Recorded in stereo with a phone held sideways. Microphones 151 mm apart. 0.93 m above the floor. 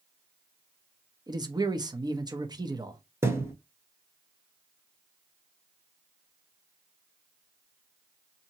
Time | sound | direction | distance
1.3 | a man speaking | 25° right (ahead or behind) | 0.7 m
3.2 | a thud | 15° right (ahead or behind) | 1.0 m